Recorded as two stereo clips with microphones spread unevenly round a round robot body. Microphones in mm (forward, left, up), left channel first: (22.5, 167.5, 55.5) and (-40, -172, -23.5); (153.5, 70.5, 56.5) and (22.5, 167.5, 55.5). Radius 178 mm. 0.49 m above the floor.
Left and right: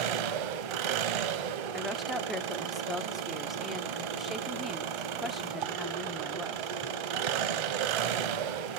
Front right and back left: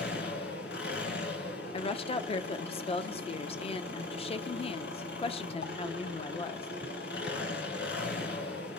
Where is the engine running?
90° right, 0.7 m.